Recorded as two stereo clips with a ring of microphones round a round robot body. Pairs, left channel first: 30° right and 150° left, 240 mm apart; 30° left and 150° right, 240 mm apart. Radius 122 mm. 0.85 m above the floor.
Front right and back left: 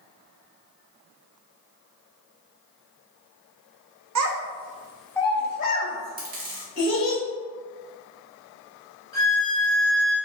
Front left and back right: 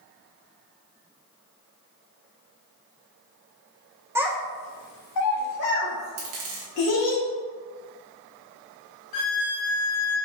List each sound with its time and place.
4.2 s a child speaking: 130° left, 0.8 m; by 7.2 s 10° left, 2.5 m
6.2 s a dropped coin: 155° right, 1.3 m
9.1 s a violin: 45° left, 1.6 m